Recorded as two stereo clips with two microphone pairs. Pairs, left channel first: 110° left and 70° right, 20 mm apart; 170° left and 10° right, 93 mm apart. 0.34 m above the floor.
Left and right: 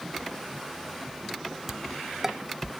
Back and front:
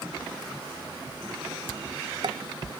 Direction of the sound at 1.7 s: Straight ahead.